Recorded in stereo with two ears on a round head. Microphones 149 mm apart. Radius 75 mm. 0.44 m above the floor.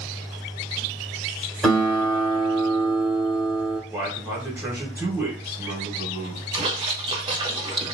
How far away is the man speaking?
About 1.1 m.